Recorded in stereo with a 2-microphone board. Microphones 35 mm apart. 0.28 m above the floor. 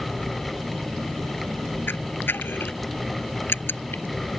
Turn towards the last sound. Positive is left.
turn(degrees=80)